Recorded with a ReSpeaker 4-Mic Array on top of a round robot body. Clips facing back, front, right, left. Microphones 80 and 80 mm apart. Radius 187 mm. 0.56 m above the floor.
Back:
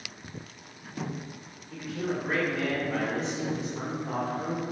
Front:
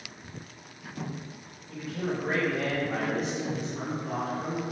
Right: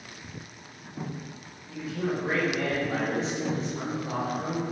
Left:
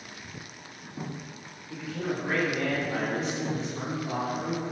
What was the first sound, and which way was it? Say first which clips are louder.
A man speaking: even, right 2 dB; 10° right.